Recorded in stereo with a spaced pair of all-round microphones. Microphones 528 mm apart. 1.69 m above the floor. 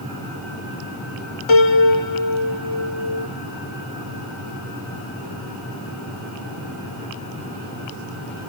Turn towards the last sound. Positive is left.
turn(degrees=60)  # may be behind; listen again after turning